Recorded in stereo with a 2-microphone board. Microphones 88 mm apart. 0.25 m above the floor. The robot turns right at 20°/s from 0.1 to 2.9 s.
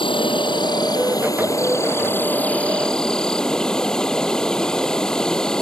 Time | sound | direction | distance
0.0 | an insect | 115° left | ?